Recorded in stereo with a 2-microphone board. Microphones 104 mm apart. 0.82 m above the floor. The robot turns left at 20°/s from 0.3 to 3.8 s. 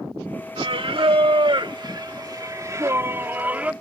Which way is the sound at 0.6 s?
100° right.